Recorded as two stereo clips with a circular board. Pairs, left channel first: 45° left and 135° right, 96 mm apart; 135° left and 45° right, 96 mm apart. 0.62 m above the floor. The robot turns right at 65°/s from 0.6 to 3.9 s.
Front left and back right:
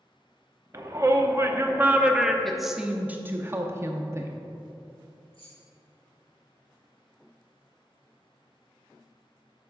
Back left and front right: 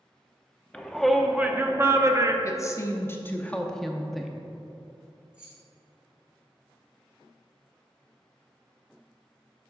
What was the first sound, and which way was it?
A shout, 155° right.